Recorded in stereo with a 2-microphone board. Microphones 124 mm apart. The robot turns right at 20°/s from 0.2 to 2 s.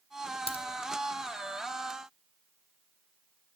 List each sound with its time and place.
0.5 s a crack: 50° left (ahead or behind), 0.6 m